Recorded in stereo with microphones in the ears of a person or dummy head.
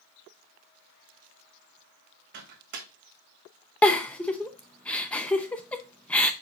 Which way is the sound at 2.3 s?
55° right (ahead or behind).